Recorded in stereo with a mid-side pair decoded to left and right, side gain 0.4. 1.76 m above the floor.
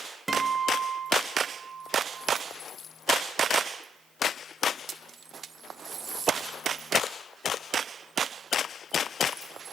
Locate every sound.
0.3 s a guitar: 25° right, 1.0 m